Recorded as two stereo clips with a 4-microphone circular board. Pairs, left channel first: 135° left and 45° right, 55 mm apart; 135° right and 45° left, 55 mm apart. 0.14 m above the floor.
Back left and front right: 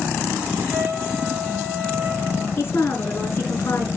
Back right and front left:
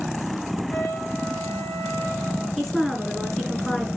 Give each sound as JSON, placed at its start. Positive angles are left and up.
{"t": 0.7, "sound": "a trumpet", "azimuth_deg": -115, "distance_m": 3.0}
{"t": 2.6, "sound": "a woman speaking", "azimuth_deg": 145, "distance_m": 2.0}